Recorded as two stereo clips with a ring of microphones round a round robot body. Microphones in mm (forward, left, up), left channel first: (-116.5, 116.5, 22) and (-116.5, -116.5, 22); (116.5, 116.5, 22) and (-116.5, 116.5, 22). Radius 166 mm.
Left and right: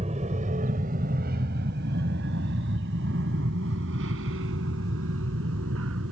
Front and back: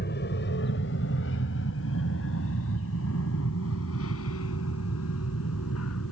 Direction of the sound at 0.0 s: 30° right.